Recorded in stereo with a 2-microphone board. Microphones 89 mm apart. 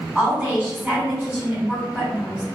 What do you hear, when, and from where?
0.1 s a woman speaking: 15° right (ahead or behind), 1.9 m